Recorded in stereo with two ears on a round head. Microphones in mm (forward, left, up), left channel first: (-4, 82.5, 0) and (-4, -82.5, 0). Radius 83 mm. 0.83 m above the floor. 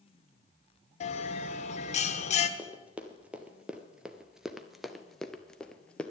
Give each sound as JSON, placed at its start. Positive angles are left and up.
{"t": 1.0, "sound": "a bell", "side_deg": 40, "distance_m": 0.9}
{"t": 2.6, "sound": "running footsteps", "side_deg": -5, "distance_m": 1.4}